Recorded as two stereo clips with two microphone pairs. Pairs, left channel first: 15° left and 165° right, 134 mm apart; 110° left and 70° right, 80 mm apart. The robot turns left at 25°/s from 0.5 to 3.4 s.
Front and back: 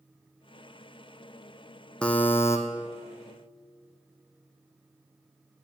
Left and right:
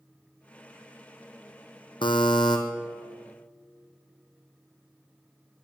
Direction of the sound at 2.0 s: 100° left.